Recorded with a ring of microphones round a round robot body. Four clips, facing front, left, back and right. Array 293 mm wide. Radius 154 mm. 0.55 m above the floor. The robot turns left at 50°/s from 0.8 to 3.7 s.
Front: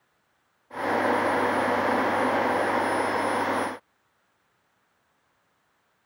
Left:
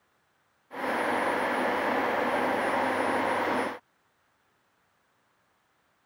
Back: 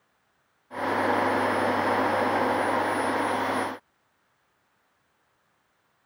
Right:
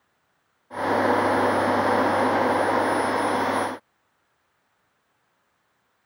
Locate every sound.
Only background noise.